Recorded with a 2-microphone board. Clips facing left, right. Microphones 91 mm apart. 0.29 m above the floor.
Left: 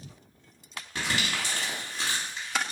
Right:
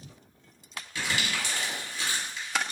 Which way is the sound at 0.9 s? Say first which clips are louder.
Left 1 dB; 50° left (ahead or behind).